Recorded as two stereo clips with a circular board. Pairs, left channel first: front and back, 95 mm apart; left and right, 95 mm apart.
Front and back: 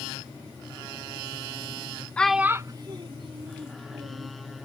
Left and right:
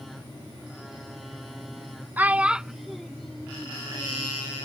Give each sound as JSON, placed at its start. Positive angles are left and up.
{"t": 2.2, "sound": "a child speaking", "azimuth_deg": -55}